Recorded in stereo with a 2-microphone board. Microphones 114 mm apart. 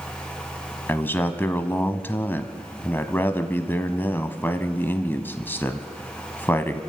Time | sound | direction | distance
0.9 | a man speaking | 20° left (ahead or behind) | 1.2 m